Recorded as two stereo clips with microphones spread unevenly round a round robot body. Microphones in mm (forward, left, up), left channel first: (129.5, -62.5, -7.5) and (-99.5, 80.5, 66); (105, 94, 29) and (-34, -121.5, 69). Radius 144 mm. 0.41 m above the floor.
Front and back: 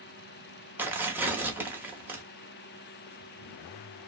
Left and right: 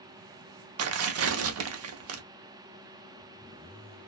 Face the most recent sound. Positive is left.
turn(degrees=-115)